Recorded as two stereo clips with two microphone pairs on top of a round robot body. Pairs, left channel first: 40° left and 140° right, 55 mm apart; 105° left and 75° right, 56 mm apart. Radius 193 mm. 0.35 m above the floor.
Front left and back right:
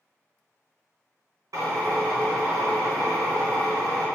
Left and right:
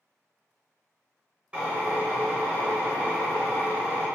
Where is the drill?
145° right, 1.0 m.